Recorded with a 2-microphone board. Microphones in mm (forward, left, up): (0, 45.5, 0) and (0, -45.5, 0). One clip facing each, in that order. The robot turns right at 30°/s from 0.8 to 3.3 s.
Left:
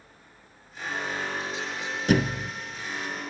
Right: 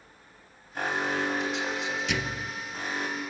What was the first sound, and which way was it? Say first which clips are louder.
An alarm: right 3 dB; 110° right.